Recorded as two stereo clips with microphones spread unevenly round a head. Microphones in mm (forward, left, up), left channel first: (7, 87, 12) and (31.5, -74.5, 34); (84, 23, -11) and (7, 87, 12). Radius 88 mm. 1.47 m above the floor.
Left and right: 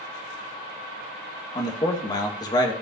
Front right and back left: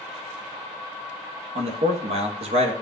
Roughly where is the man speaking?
Behind.